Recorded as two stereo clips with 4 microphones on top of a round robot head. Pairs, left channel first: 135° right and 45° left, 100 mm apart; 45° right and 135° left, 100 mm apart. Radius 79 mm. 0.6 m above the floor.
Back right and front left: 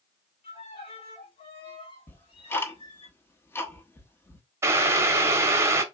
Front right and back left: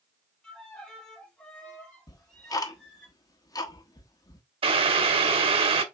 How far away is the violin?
About 2.5 m.